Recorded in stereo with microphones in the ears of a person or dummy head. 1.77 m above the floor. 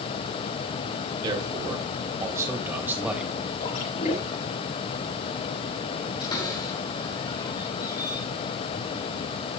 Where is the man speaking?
25° right (ahead or behind), 3.5 m; by 3.3 s 5° right (ahead or behind), 3 m.